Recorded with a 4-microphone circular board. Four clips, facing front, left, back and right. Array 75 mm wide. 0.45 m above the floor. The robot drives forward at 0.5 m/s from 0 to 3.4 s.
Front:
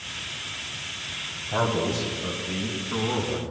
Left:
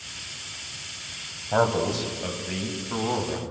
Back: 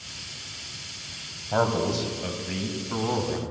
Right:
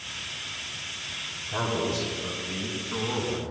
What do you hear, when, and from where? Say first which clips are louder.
1.5 s a man speaking: left 6 dB, back 1 dB; 120° left, 2.5 m; by 3.4 s 135° left, 3 m